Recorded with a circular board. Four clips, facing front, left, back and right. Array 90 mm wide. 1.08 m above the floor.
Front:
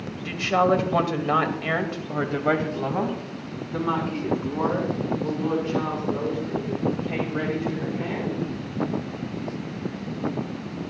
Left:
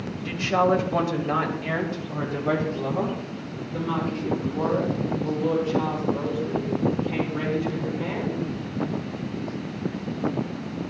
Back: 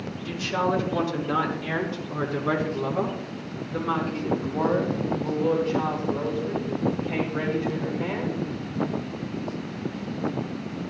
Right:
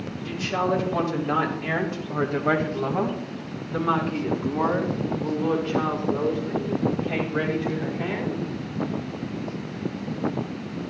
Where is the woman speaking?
30° left, 1.8 m; by 8.4 s 65° right, 6 m.